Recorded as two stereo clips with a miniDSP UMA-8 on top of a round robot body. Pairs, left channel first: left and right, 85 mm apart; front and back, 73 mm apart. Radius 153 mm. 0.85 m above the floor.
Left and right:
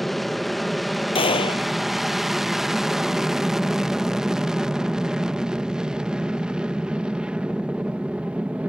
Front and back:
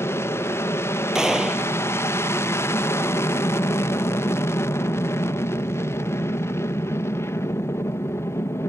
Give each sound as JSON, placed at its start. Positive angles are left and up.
{"t": 0.0, "sound": "an aircraft", "azimuth_deg": 0}
{"t": 1.1, "sound": "a gunshot", "azimuth_deg": 100}